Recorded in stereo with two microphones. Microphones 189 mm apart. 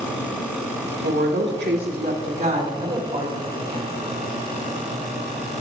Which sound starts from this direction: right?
A woman speaking, at 1.0 s.